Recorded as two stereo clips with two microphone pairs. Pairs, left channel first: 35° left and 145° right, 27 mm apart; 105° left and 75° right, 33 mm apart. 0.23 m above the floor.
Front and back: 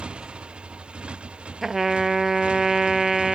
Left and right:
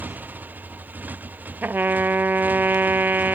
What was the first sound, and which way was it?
A motorcycle, 100° right.